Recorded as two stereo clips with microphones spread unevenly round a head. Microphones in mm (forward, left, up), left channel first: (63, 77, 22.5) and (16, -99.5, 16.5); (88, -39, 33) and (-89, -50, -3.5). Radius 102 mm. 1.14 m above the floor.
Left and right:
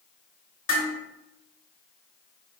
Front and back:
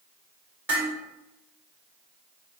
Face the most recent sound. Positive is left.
turn(degrees=100)